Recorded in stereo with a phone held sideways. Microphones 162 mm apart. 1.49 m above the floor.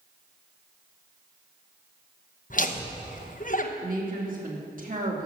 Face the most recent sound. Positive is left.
turn(degrees=-55)  # may be behind; listen again after turning